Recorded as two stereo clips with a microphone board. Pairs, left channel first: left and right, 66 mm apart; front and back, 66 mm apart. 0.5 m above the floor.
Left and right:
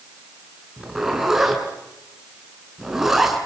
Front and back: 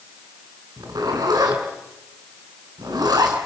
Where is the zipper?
175° right, 5 m.